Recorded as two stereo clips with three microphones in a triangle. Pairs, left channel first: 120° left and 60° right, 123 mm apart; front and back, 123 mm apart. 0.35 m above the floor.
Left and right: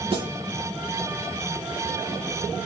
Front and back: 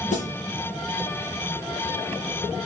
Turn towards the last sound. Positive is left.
turn(degrees=-15)